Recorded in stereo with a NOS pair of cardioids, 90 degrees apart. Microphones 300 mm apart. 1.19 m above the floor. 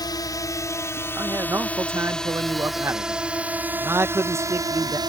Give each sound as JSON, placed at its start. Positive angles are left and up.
{"t": 0.0, "sound": "a drone", "azimuth_deg": 15}
{"t": 1.1, "sound": "a man speaking", "azimuth_deg": -10}